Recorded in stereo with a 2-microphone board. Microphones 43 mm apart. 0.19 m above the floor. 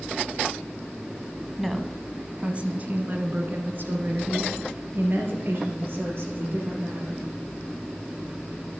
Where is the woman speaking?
Centre (ahead or behind), 1.0 m; by 7.2 s 70° right (ahead or behind), 4.5 m.